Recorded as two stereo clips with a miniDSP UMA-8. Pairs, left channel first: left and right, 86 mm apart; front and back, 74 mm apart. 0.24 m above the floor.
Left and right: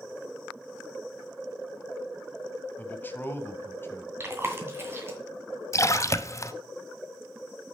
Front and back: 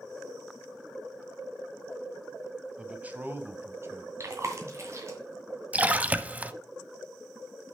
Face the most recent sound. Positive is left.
turn(degrees=120)